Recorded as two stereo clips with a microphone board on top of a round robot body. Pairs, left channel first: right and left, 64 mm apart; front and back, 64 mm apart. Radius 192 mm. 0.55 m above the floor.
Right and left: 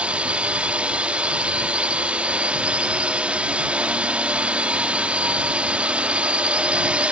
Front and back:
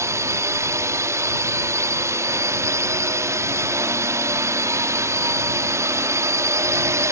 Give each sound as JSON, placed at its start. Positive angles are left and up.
{"t": 0.0, "sound": "a drone", "azimuth_deg": 155}